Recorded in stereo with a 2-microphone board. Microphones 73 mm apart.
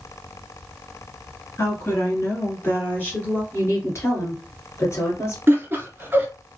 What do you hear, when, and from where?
1.6 s a woman speaking: 40° left (ahead or behind), 1.4 m; by 3.4 s 25° left (ahead or behind), 1.5 m
3.5 s a woman speaking: 40° left (ahead or behind), 1.6 m
5.5 s laughter: 30° right (ahead or behind), 1.3 m